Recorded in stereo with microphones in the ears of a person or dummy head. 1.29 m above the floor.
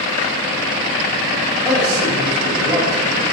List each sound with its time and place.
1.6 s a man speaking: 10° right (ahead or behind), 7.5 m